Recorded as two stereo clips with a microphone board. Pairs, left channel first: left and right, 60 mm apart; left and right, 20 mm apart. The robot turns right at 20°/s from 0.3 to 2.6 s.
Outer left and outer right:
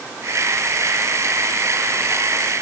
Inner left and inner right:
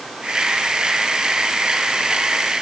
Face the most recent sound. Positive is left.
No sound to turn to.